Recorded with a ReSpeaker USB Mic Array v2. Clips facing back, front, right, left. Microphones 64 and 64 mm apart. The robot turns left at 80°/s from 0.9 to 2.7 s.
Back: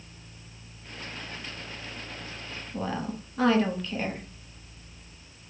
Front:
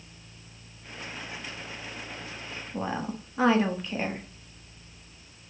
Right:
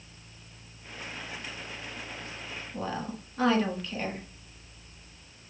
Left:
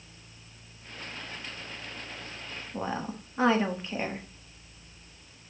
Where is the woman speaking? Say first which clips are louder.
Even, left 1 dB; 50° left, 0.7 m.